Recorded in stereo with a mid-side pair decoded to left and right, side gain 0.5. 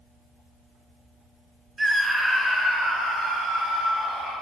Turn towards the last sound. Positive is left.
turn(degrees=35)